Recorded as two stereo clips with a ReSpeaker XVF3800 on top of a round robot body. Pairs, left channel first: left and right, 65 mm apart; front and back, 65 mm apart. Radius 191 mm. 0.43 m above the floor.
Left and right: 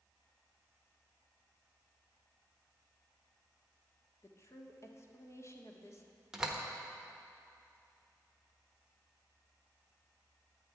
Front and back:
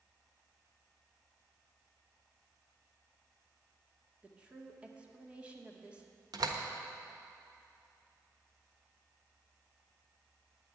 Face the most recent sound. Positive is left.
turn(degrees=-170)